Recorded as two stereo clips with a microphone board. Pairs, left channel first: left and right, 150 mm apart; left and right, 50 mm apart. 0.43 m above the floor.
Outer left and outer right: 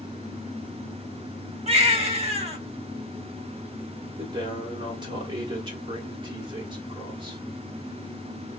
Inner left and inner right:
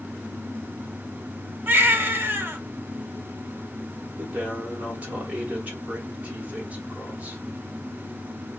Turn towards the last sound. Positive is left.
turn(degrees=-30)  # may be behind; listen again after turning